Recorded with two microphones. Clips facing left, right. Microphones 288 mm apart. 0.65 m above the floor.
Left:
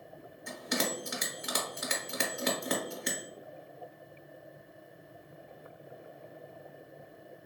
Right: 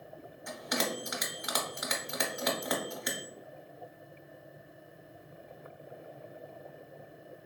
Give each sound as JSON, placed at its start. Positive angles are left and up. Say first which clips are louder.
{"t": 0.5, "sound": "a bell", "louder": "left 1 dB", "side_deg": 30, "distance_m": 0.8}